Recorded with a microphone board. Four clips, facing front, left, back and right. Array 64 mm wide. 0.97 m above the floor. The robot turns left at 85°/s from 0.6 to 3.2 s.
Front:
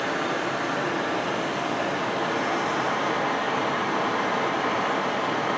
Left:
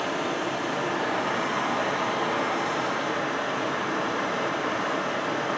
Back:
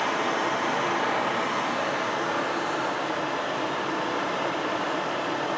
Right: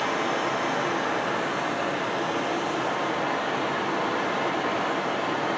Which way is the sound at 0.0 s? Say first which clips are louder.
Right 2 dB, back 1 dB; 145° right.